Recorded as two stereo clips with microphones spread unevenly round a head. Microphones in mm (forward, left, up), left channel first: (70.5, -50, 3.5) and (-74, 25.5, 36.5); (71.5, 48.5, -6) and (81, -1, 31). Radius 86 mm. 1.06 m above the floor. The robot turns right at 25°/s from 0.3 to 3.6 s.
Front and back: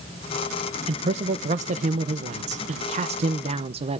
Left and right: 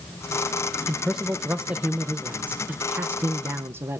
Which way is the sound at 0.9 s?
120° left.